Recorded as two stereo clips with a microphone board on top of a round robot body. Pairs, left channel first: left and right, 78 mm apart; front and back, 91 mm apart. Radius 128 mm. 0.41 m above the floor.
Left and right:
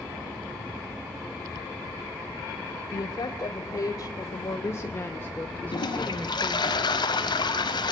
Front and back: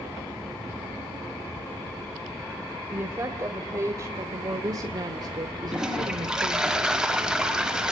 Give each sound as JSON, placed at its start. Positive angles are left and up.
{"t": 2.9, "sound": "a woman speaking", "azimuth_deg": 120, "distance_m": 2.5}
{"t": 5.7, "sound": "a toilet flushing", "azimuth_deg": 100, "distance_m": 3.5}